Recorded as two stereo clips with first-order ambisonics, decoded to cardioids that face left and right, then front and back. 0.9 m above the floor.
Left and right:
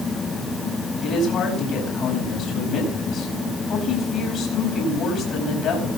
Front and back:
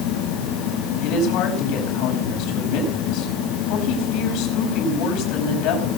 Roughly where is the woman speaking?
Ahead left.